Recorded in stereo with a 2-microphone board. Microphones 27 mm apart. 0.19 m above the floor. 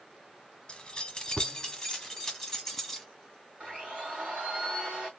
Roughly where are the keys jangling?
Left.